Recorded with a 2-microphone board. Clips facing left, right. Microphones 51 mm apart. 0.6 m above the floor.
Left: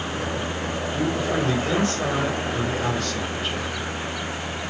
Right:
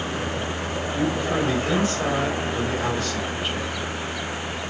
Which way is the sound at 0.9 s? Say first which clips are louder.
Right 1 dB; 5° right (ahead or behind).